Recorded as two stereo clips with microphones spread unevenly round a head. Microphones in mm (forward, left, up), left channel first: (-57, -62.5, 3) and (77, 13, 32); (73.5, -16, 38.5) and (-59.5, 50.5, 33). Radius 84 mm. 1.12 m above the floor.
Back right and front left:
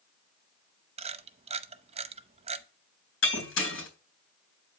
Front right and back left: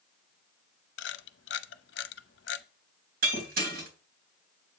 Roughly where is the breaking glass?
Behind.